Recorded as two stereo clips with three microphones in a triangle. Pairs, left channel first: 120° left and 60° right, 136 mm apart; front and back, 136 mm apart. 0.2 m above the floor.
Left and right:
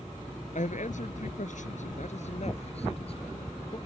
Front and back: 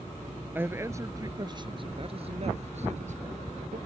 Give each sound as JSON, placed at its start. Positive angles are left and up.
{"t": 0.6, "sound": "a man speaking", "azimuth_deg": 105}